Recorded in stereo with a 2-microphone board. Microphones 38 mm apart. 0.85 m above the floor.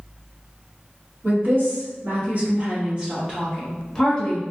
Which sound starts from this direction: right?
A woman speaking, at 1.2 s.